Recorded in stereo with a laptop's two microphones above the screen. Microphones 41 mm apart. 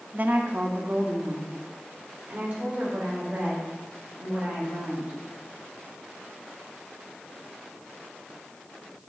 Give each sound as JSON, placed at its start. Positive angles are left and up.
{"t": 0.1, "sound": "a woman speaking", "side_deg": -45, "distance_m": 0.6}